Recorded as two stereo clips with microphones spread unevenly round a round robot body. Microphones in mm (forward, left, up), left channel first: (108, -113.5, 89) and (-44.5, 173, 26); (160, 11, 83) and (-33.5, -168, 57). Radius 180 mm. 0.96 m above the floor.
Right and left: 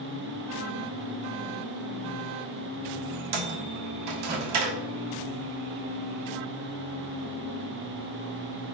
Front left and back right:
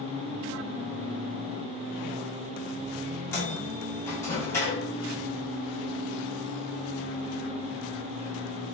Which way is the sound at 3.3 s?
125° left.